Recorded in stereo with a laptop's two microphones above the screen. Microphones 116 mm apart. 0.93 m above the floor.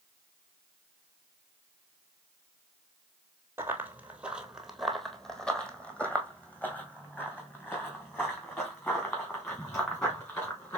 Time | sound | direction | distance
3.6 | running footsteps | 20° right (ahead or behind) | 0.9 m